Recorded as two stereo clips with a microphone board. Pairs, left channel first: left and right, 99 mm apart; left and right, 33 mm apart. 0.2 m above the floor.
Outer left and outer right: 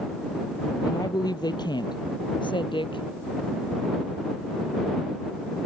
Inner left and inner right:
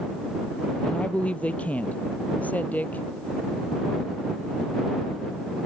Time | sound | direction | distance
0.8 | a woman speaking | 40° left (ahead or behind) | ?